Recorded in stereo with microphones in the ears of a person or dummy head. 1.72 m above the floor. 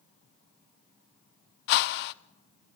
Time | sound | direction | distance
1.7 | a whoosh | 60° left (ahead or behind) | 0.8 m